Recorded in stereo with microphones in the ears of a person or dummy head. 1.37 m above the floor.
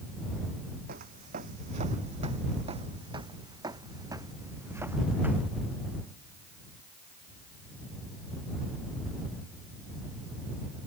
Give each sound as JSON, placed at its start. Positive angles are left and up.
{"t": 0.9, "sound": "footsteps", "side_deg": -50}